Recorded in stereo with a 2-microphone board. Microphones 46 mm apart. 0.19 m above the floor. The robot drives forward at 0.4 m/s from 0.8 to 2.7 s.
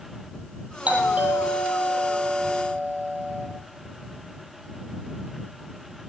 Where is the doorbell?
30° right (ahead or behind), 6 m; by 3.5 s 35° right (ahead or behind), 5 m.